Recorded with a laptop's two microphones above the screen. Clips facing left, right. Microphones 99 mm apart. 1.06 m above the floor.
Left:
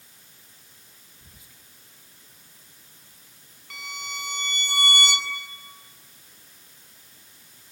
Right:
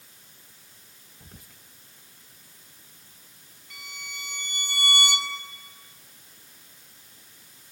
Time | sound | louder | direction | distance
1.2 | whispering | right 7 dB | 55° right (ahead or behind) | 1.2 m
3.7 | a violin | left 6 dB | 65° left (ahead or behind) | 2.5 m